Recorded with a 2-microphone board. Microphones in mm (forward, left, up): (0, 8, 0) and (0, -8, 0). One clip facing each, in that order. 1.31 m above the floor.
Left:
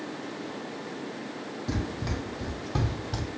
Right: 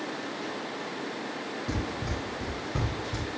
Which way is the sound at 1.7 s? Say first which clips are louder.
Left 2 dB; 15° left (ahead or behind).